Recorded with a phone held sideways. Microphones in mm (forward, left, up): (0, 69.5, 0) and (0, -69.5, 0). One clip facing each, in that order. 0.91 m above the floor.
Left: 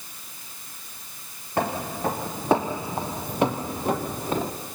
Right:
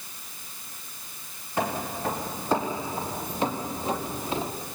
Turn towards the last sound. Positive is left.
turn(degrees=40)  # may be behind; listen again after turning